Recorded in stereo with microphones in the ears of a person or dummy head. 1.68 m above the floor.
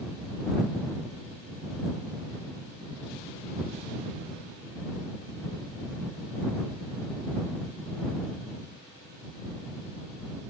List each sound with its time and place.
Only background noise.